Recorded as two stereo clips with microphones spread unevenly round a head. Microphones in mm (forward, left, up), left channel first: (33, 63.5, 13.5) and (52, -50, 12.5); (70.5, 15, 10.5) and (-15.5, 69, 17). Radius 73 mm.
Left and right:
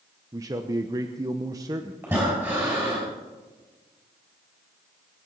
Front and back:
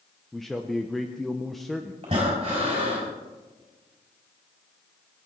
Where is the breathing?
155° right, 4 m.